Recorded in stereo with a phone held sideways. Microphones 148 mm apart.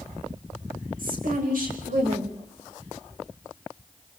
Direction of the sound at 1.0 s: 85° right.